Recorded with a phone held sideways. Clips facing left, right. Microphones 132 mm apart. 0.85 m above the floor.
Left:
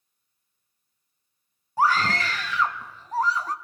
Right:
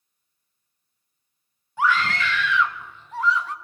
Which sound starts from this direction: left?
A scream, at 1.8 s.